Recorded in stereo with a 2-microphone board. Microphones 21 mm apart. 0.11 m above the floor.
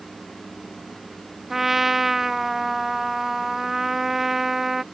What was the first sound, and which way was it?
A trumpet, 15° right (ahead or behind).